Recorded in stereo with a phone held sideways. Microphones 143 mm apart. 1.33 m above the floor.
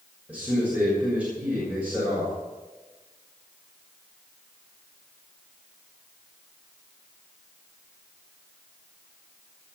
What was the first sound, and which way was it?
A man speaking, 10° right (ahead or behind).